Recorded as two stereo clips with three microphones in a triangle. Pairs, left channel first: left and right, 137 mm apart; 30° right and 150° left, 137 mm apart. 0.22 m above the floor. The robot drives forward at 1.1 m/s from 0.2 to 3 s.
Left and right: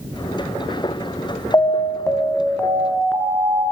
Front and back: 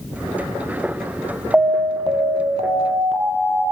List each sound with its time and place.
1.5 s an alarm: 80° left, 0.7 m; by 3.6 s 165° left, 1.7 m